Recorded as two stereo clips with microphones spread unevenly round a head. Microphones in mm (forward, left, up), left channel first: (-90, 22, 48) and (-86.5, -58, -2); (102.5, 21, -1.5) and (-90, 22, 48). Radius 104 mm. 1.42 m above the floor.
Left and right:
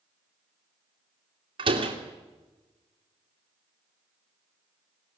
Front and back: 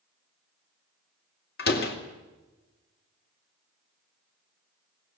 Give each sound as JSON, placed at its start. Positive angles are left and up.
{"t": 1.6, "sound": "a door slam", "azimuth_deg": -45, "distance_m": 2.5}